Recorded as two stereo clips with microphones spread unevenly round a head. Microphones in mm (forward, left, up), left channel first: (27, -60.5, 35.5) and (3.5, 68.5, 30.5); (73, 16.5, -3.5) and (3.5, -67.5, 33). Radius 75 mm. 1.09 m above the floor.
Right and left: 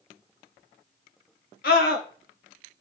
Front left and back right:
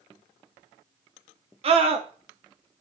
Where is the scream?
95° right, 2 m.